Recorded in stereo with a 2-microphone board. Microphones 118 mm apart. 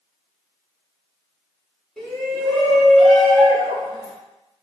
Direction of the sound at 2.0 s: Centre (ahead or behind).